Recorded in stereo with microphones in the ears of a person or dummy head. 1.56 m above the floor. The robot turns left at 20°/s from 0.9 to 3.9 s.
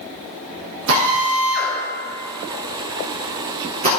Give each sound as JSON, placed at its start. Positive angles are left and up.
{"t": 0.9, "sound": "a drill", "side_deg": -75, "distance_m": 3.5}